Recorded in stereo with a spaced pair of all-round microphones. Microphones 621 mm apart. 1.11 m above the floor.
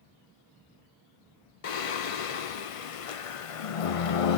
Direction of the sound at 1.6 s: 60° left (ahead or behind).